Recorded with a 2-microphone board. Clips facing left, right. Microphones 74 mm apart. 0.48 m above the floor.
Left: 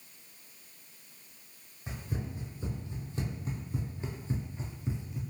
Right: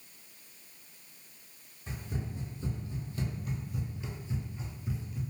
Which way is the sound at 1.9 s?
20° left (ahead or behind).